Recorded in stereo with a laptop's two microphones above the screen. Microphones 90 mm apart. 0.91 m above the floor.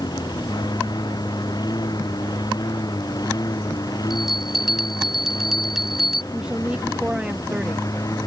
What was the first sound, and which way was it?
A lawn mower, 50° left (ahead or behind).